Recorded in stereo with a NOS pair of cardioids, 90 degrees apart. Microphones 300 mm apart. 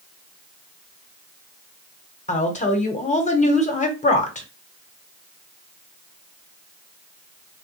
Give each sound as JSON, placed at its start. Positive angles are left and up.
{"t": 2.3, "sound": "a woman speaking", "azimuth_deg": 25, "distance_m": 1.2}